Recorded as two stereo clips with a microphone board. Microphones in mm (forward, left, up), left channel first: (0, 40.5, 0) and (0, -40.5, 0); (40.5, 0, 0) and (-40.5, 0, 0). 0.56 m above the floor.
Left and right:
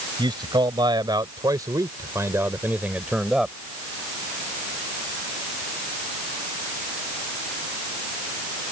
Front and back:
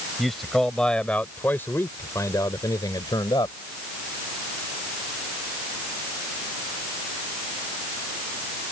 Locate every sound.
0.2 s a man speaking: 90° right; by 3.6 s 5° right